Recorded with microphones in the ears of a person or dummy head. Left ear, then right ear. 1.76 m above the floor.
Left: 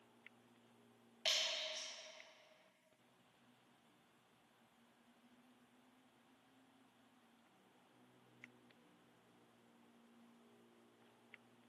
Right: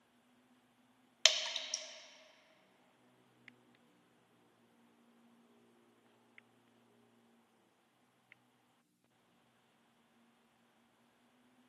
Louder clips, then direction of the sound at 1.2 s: Right 7 dB; 60° right (ahead or behind).